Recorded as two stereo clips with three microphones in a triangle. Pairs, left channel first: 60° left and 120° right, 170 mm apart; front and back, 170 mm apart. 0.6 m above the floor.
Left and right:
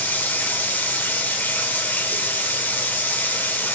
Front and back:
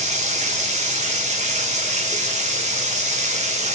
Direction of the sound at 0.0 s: 135° left.